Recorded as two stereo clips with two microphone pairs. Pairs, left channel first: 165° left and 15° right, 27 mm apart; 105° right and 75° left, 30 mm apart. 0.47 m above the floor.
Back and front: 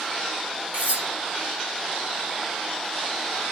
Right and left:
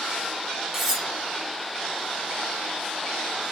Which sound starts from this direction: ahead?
Cutlery clinking, at 0.7 s.